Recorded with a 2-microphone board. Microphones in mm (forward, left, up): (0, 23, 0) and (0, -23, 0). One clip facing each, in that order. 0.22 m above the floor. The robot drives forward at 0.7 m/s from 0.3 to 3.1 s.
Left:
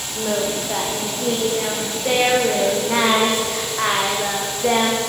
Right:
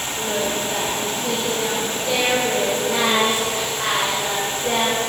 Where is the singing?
40° left (ahead or behind), 8 m; by 5.1 s 50° left (ahead or behind), 6.5 m.